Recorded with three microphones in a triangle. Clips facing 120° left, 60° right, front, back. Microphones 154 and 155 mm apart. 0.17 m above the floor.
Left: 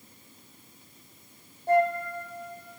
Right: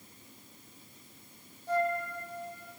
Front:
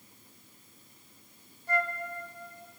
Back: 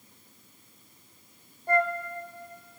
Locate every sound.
1.7 s a flute: 145° left, 1.4 m